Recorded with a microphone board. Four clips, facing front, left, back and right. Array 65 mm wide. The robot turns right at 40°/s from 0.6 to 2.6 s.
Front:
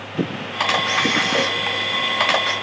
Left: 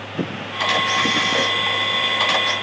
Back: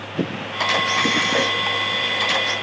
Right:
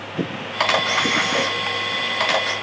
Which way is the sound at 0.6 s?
75° right.